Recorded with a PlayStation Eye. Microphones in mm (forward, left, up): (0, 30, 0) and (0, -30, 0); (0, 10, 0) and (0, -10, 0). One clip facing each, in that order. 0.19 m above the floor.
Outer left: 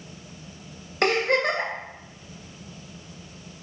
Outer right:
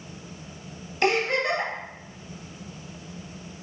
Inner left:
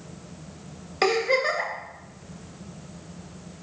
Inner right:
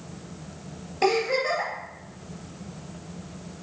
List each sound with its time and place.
1.0 s a giggle: 60° left (ahead or behind), 3 m